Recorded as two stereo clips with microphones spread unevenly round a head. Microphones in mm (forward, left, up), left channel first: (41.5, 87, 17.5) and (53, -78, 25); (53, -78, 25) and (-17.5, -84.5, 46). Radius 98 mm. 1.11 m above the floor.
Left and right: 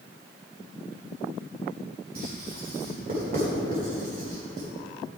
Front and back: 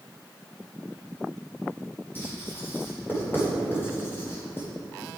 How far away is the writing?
About 3.5 m.